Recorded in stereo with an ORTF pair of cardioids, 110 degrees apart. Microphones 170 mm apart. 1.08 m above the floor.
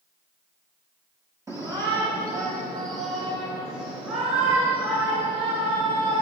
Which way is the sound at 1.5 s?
20° right.